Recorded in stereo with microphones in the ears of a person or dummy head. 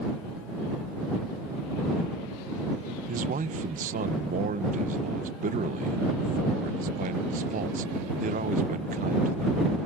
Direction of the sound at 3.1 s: 40° right (ahead or behind).